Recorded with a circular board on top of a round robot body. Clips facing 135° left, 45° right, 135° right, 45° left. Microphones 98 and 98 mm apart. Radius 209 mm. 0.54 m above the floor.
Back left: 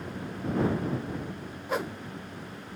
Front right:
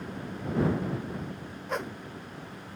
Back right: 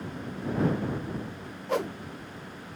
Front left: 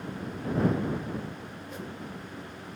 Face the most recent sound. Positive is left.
turn(degrees=-140)